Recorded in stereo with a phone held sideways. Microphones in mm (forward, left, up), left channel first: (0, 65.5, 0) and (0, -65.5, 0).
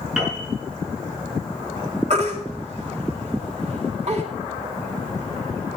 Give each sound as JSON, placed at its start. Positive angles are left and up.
{"t": 0.2, "sound": "a piano", "side_deg": -5, "distance_m": 5.0}
{"t": 2.1, "sound": "a baby crying", "side_deg": -55, "distance_m": 2.0}